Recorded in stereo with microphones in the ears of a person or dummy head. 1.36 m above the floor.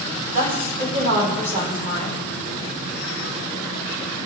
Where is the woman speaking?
40° right (ahead or behind), 3 m.